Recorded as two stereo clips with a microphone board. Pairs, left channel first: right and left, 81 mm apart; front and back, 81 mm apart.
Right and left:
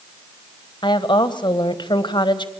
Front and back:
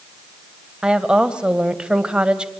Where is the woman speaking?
100° right, 1.7 m.